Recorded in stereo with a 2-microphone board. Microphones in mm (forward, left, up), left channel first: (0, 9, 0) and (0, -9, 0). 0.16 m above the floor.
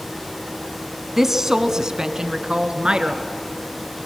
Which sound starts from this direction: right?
A woman speaking, at 1.2 s.